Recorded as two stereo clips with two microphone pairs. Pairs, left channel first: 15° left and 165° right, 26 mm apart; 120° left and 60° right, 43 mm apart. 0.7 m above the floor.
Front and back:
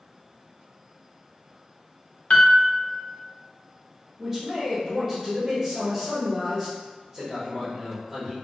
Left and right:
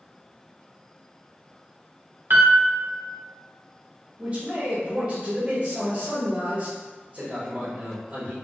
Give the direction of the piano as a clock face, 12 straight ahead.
1 o'clock.